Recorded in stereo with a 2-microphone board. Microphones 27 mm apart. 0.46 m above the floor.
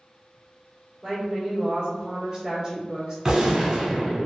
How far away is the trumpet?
No trumpet in this recording.